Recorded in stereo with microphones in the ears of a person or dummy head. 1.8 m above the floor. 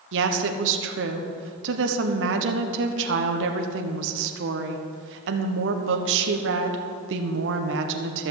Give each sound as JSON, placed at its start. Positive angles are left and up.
{"t": 0.1, "sound": "a woman speaking", "side_deg": -70, "distance_m": 1.2}